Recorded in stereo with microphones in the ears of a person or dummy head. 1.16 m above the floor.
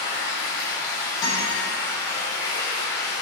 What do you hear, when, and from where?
0.0 s running water: 25° left (ahead or behind), 4 m
1.2 s a guitar: 25° left (ahead or behind), 4 m